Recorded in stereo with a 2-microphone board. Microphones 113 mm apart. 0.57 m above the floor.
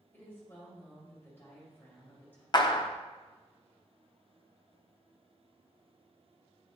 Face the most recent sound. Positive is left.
turn(degrees=40)  # may be behind; listen again after turning